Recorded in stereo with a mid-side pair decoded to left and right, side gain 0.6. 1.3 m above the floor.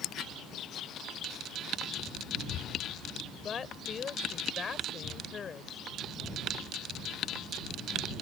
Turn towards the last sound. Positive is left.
turn(degrees=35)